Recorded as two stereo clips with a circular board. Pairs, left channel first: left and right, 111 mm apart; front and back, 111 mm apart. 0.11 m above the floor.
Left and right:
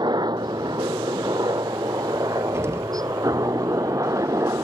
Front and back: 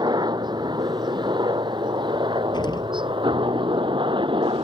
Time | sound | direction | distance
0.0 | a helicopter | 135° right | ?
2.5 | an explosion | 30° right | ?